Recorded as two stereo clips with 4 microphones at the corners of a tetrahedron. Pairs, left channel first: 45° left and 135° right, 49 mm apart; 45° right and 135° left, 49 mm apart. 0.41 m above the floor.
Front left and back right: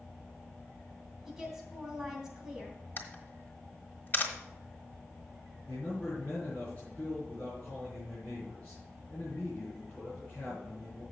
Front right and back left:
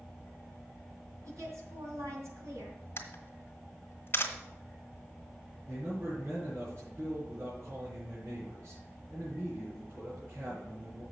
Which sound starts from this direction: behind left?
A woman speaking, at 1.2 s.